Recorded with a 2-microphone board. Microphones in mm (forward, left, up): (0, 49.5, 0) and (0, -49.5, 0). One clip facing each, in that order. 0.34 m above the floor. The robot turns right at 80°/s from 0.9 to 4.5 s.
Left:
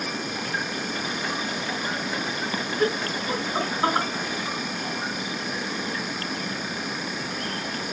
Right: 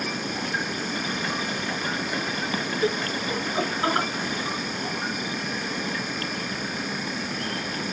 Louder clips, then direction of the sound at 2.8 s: Left 2 dB; 70° left (ahead or behind).